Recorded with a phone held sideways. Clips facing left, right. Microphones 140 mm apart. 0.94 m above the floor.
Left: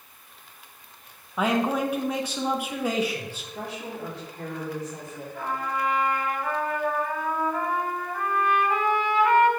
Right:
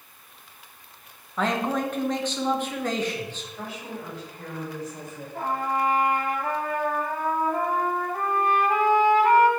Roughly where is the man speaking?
Centre.